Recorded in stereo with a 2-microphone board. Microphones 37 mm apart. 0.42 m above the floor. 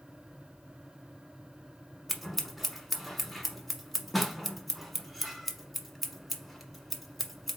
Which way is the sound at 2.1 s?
5° right (ahead or behind).